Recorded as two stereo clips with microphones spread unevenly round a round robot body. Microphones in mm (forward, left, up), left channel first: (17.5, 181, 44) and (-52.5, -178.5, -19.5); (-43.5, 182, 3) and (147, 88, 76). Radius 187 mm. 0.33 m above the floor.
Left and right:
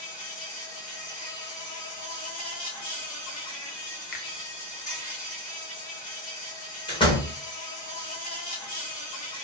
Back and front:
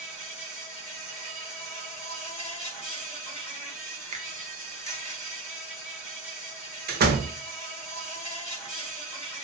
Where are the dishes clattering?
No dishes clattering in this recording.